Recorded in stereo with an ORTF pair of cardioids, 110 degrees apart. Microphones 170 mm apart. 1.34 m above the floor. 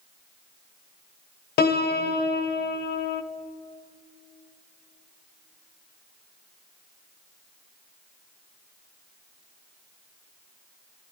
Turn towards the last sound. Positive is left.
turn(degrees=65)